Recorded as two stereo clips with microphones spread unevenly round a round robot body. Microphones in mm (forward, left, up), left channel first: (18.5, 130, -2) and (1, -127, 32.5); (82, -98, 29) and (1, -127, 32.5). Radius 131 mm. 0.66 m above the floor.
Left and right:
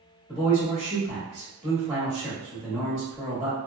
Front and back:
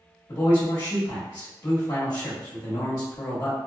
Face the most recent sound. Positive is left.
turn(degrees=-10)